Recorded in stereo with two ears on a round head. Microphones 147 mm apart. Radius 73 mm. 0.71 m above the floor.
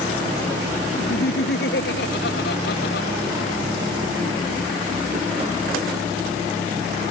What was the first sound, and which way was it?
Laughter, 70° left (ahead or behind).